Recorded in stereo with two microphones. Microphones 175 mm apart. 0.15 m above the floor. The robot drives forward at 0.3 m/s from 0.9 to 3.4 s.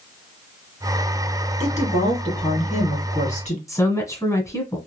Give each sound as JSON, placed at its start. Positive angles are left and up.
{"t": 1.6, "sound": "a woman speaking", "side_deg": 40, "distance_m": 2.0}
{"t": 3.7, "sound": "a woman speaking", "side_deg": 20, "distance_m": 1.1}